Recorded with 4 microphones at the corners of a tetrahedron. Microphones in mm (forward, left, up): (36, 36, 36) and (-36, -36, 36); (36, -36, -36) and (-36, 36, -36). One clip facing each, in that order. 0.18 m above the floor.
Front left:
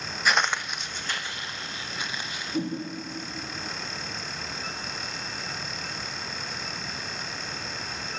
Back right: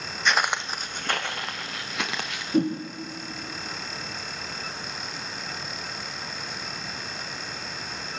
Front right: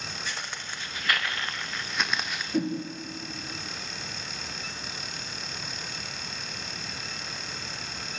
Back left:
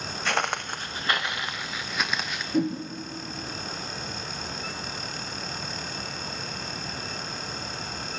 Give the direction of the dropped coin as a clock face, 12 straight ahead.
No dropped coin in this recording.